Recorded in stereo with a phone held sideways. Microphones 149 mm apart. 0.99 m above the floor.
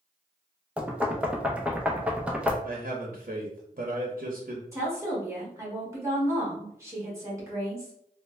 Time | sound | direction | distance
0.8 | knocking | 10° right (ahead or behind) | 0.5 m
2.6 | a man speaking | 60° right (ahead or behind) | 0.7 m
4.7 | a woman speaking | 20° right (ahead or behind) | 1.5 m